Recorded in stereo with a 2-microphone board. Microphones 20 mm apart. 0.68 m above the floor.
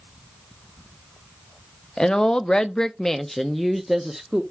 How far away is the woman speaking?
About 0.7 m.